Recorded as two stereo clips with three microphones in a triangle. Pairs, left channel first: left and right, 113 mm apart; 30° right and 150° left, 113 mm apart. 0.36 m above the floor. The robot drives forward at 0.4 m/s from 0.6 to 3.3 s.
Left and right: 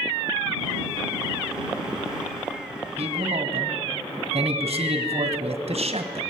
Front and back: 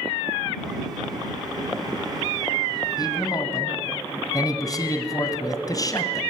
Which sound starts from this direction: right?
A man speaking, at 3.0 s.